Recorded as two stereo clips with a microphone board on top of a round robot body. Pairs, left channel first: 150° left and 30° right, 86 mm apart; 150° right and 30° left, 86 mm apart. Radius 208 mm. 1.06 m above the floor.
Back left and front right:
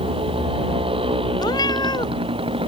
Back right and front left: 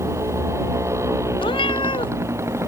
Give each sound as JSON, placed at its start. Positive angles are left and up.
{"t": 0.0, "sound": "a motorcycle", "azimuth_deg": -25}
{"t": 1.4, "sound": "a cat meowing", "azimuth_deg": -170}